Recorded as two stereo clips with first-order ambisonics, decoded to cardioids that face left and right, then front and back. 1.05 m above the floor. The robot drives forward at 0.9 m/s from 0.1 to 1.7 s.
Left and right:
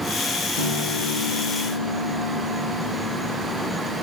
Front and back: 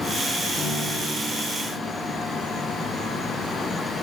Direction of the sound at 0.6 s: 75° left.